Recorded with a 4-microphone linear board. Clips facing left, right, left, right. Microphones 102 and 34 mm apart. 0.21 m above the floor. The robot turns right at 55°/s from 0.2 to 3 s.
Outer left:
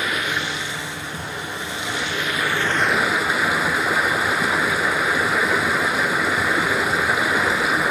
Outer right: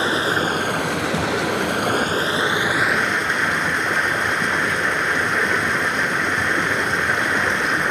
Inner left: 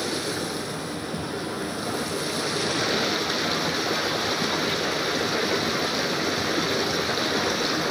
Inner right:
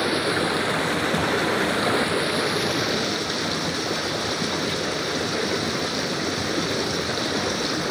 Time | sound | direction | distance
0.0 | running water | 150° right | 0.8 m